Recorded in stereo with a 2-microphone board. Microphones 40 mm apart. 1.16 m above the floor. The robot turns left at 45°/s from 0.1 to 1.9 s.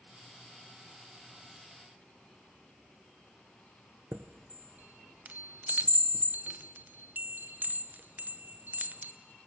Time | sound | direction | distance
4.1 | a chime | 45° right (ahead or behind) | 0.6 m